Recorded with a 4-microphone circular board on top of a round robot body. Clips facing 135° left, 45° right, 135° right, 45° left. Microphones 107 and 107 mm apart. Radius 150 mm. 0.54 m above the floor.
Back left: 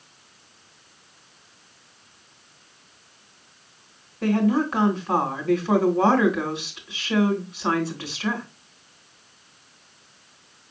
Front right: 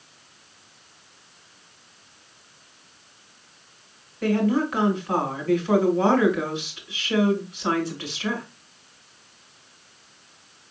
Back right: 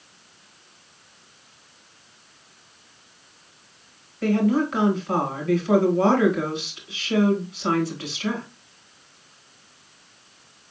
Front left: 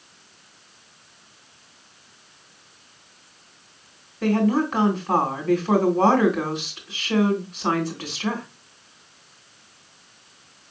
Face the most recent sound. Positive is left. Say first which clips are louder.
# back left 1 dB, even
turn(degrees=80)